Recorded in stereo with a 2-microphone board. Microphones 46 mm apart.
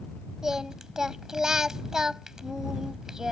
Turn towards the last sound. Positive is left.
turn(degrees=-15)  # may be behind; listen again after turning